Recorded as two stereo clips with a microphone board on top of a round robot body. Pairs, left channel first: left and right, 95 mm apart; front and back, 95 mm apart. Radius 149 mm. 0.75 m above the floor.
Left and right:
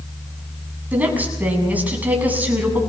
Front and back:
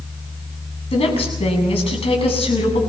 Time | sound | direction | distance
0.9 | a woman speaking | 15° right | 7.5 m